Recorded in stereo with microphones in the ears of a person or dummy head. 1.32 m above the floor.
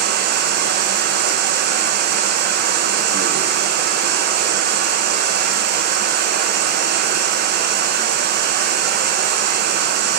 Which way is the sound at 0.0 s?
55° right (ahead or behind).